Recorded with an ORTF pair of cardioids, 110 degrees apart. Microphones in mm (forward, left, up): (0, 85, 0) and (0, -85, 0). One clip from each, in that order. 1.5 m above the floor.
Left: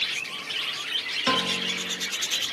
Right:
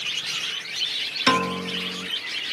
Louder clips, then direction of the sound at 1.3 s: Right 3 dB; 25° right.